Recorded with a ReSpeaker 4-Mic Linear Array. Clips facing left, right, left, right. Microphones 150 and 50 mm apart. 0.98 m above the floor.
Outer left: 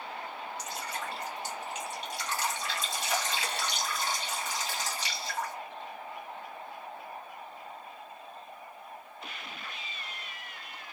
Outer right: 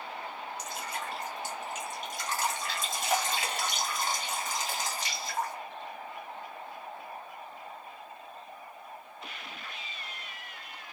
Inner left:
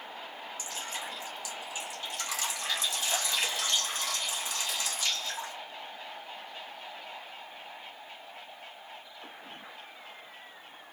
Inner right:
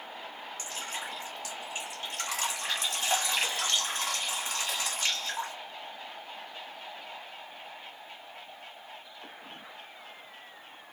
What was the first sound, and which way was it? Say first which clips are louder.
Dripping: even, inner right 1 dB; 45° right (ahead or behind).